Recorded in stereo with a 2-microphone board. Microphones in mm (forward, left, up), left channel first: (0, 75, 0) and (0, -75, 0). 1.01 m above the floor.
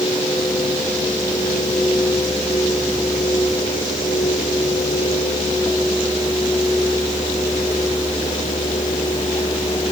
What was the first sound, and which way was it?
Only background noise.